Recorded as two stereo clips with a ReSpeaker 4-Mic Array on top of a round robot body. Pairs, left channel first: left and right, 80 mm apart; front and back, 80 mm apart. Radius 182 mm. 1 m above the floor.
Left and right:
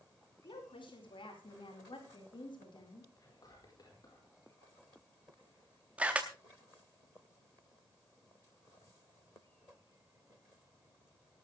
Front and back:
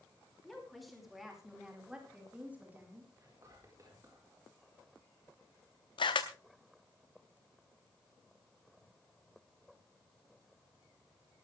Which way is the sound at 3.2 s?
130° left.